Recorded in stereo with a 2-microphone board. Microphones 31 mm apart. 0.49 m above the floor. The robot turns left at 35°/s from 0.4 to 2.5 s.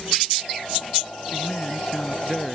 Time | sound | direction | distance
1.3 | a man speaking | 40° left | ?